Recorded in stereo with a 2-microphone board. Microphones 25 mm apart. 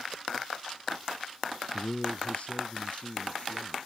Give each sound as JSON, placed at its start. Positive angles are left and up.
{"t": 1.7, "sound": "a man speaking", "side_deg": 35}